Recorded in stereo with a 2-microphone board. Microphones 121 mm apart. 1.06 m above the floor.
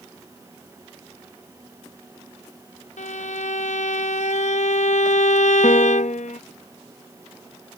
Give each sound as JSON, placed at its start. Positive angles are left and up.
{"t": 3.0, "sound": "a violin", "side_deg": 75}
{"t": 5.6, "sound": "a piano", "side_deg": 75}